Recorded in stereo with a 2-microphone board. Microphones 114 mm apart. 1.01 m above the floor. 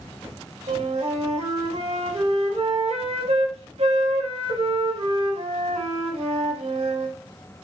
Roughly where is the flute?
Right.